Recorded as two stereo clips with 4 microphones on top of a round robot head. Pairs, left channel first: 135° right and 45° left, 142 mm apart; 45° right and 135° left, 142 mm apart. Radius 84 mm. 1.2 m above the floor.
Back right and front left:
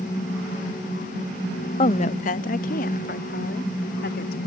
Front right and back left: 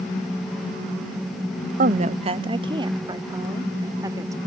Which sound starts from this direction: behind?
A woman speaking, at 1.8 s.